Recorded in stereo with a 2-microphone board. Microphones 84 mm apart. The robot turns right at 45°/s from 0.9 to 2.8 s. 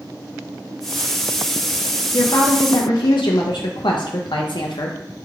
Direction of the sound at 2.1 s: 45° left (ahead or behind).